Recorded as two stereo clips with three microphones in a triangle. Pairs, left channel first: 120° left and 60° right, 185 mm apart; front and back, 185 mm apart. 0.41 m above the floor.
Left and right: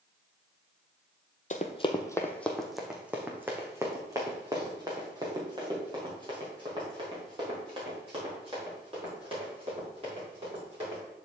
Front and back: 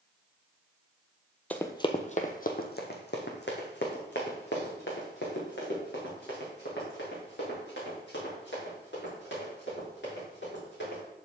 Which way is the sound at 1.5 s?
85° left.